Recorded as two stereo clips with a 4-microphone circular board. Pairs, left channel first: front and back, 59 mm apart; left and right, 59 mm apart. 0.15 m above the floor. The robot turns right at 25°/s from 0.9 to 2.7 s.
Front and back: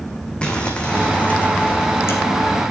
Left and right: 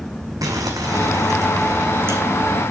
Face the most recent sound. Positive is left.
turn(degrees=-30)